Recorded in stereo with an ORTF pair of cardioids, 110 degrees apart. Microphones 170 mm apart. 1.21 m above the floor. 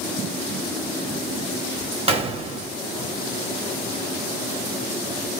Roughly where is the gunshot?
Ahead right.